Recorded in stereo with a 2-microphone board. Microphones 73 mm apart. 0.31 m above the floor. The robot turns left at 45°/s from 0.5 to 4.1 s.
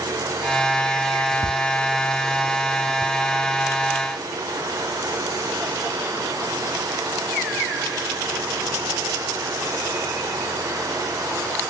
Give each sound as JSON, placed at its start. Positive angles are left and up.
{"t": 1.4, "sound": "ticking", "side_deg": -80, "distance_m": 1.1}